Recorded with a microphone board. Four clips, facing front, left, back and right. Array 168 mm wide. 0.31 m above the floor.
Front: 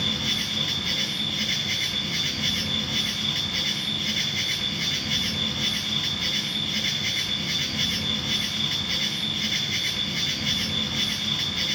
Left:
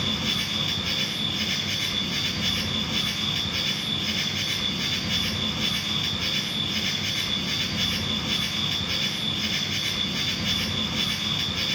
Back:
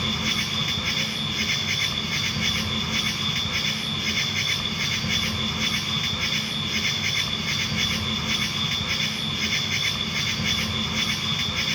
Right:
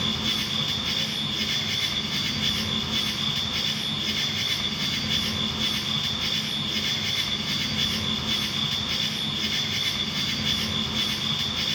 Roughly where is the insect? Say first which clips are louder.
Even, back 2 dB; behind.